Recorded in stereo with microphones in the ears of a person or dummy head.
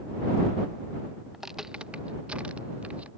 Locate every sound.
1.3 s footsteps: 5° right (ahead or behind); by 3.1 s 10° right (ahead or behind)